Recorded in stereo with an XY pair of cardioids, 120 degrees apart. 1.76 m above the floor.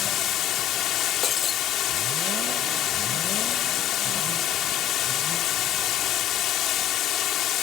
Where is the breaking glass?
45° left.